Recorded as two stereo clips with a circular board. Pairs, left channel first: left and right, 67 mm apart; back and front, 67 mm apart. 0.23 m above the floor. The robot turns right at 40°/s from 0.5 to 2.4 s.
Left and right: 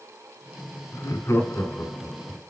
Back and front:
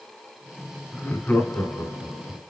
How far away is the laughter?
About 2 m.